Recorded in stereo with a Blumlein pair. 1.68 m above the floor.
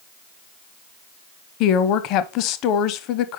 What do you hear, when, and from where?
1.6 s a woman speaking: 40° left, 0.7 m